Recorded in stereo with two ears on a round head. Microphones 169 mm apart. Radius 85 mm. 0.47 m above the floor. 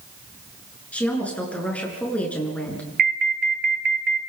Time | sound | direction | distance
0.9 | a woman speaking | 10° left (ahead or behind) | 8 m
3.0 | an alarm | 50° right (ahead or behind) | 1.0 m